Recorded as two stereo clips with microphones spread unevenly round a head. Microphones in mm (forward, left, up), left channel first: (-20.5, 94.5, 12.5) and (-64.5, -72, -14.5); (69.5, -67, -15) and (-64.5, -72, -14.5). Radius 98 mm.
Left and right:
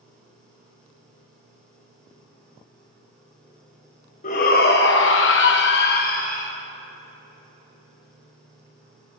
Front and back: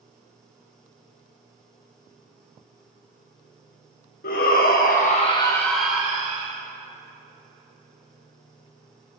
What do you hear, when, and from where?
4.2 s a shout: 25° left, 2 m; by 6.5 s 120° left, 1.9 m